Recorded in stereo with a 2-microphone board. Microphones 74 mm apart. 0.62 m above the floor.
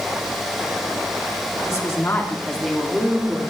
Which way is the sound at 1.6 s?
45° left (ahead or behind).